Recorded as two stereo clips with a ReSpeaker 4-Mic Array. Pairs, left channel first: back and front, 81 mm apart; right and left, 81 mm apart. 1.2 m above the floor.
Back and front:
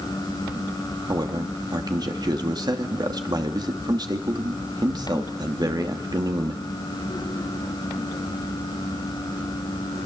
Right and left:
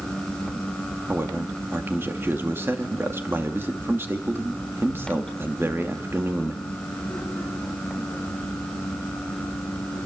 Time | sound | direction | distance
1.1 | a man speaking | 30° left | 2.5 m